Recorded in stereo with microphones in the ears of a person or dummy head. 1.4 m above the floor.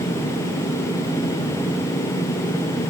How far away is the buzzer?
I don't hear a buzzer.